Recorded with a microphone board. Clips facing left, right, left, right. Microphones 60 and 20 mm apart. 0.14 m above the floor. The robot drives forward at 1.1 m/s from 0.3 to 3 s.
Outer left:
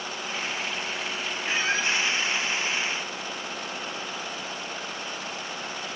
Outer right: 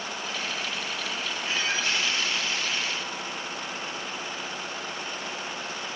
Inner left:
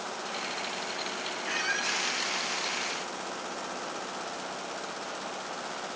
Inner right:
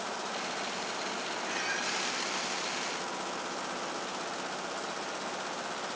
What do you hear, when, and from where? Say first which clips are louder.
1.4 s a squeak: outer left 3 dB, inner left 5 dB; 30° left (ahead or behind), 1.3 m; by 2.0 s 35° left (ahead or behind), 1.1 m